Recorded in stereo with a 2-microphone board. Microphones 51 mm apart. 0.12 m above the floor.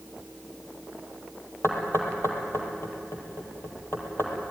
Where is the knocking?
60° left (ahead or behind), 3.5 m.